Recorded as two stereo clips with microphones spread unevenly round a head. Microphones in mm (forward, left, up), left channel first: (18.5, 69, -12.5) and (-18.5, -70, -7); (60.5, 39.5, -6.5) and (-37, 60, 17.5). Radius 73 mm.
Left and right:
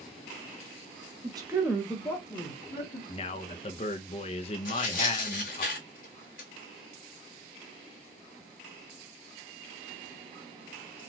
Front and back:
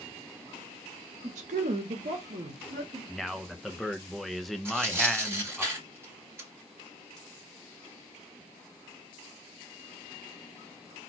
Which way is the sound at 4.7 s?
100° left.